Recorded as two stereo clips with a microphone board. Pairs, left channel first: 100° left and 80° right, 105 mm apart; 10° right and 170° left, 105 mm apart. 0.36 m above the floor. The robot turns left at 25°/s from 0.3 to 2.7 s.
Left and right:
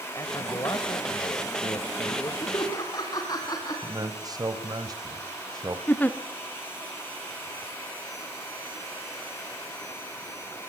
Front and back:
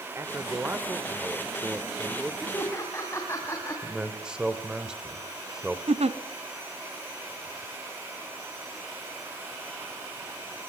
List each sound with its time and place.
0.1 s a man speaking: 130° left, 1.4 m; by 2.3 s 80° left, 1.4 m
2.4 s laughter: 60° left, 3 m; by 3.8 s 50° left, 3 m
3.8 s a man speaking: 110° right, 2.0 m
5.9 s a giggle: 175° left, 1.0 m